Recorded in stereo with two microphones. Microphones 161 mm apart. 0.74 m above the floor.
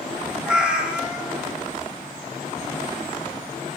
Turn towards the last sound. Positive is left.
turn(degrees=-5)  # may be behind; listen again after turning